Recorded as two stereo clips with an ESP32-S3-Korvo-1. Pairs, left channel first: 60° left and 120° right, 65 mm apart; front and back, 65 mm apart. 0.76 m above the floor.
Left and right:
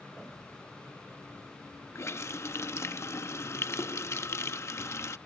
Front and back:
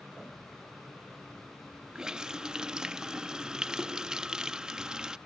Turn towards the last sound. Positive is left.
turn(degrees=100)